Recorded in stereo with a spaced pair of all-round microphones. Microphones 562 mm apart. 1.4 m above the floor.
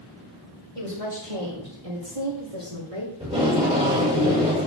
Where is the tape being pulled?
10° right (ahead or behind), 6.5 m.